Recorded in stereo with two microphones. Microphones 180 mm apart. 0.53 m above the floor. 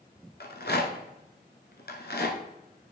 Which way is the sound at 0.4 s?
70° left (ahead or behind).